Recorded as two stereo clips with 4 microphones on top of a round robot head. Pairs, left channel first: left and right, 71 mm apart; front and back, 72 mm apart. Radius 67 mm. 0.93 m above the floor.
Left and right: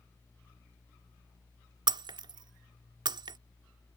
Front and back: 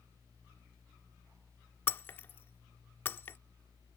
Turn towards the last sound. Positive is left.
turn(degrees=-70)